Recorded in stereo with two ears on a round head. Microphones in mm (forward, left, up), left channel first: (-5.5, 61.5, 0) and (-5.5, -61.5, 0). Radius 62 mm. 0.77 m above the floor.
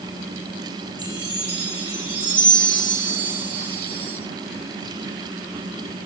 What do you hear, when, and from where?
1.0 s a chime: 10° right (ahead or behind), 6 m